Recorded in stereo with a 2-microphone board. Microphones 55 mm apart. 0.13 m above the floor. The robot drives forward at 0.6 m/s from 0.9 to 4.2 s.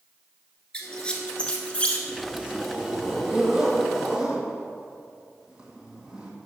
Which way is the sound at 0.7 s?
20° left (ahead or behind).